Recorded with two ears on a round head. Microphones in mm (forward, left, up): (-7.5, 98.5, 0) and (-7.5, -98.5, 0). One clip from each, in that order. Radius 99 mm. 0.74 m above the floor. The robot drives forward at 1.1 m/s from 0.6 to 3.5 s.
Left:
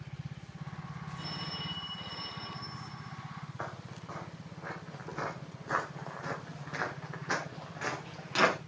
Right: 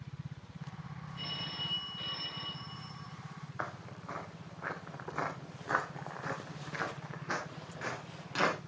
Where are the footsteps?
70° right (ahead or behind), 3.5 m; by 8.6 s 20° left (ahead or behind), 4.5 m.